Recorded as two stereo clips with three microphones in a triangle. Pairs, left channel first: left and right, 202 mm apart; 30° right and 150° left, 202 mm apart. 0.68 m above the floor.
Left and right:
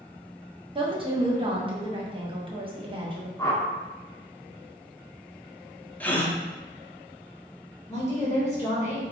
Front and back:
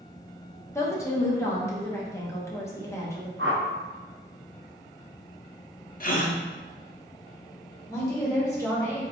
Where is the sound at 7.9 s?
35° left, 1.2 m.